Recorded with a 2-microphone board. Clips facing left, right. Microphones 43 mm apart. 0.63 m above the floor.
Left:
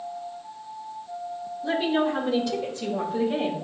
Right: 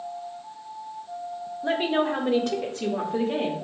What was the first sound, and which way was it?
A woman speaking, 50° right (ahead or behind).